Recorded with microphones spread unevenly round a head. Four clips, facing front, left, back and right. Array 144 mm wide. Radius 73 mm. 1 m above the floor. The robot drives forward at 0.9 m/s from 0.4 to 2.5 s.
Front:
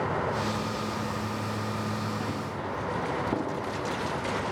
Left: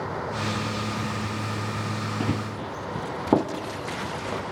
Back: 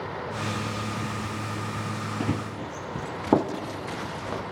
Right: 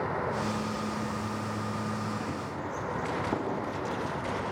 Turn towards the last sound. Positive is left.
turn(degrees=135)